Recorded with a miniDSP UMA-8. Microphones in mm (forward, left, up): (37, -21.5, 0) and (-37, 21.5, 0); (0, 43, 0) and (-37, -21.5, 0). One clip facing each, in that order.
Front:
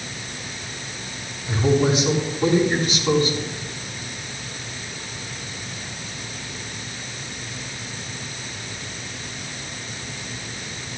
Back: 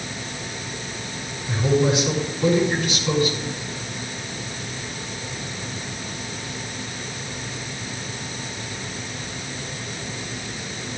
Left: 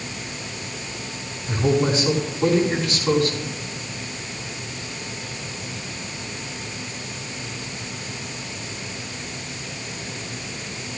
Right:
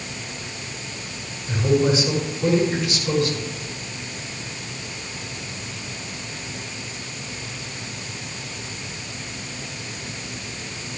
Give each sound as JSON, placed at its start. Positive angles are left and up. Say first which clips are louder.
{"t": 1.5, "sound": "a man speaking", "louder": "front 1 dB, right 1 dB", "azimuth_deg": 20, "distance_m": 6.0}